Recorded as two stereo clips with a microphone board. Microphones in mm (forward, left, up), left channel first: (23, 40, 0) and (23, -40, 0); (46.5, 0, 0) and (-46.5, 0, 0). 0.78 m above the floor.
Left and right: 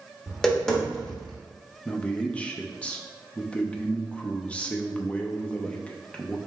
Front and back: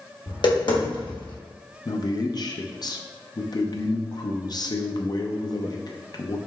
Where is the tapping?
10° left, 1.3 m.